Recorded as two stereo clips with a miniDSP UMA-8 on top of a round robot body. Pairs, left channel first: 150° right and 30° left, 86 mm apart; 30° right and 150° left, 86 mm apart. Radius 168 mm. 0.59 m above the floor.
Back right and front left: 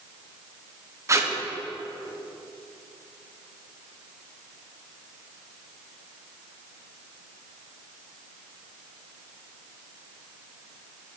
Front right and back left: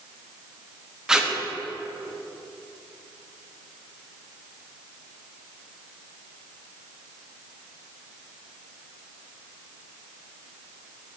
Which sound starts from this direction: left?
Tape being pulled, at 1.1 s.